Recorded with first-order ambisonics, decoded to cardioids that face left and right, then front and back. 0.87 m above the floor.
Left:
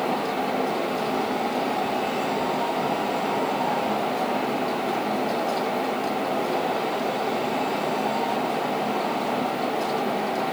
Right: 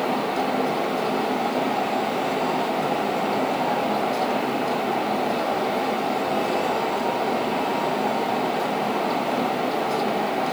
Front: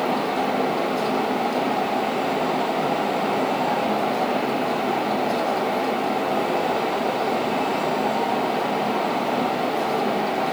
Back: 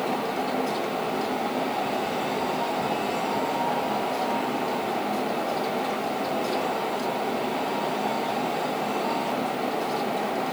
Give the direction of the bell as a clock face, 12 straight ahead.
I don't hear a bell.